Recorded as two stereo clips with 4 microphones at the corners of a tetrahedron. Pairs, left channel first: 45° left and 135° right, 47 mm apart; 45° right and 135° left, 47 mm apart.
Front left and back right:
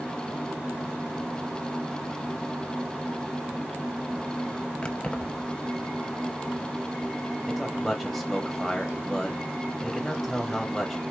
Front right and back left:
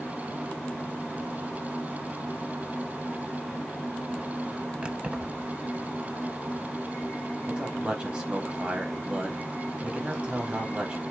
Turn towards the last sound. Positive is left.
turn(degrees=120)